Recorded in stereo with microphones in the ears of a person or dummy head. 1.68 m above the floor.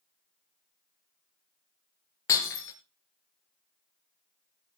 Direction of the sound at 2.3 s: 20° left (ahead or behind).